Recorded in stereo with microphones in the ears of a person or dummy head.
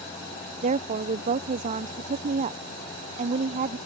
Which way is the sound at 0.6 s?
40° right (ahead or behind).